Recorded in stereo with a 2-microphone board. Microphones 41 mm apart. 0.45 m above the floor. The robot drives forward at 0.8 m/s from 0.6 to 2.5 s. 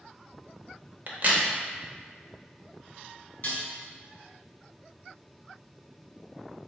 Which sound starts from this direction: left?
Dishes clattering, at 3.4 s.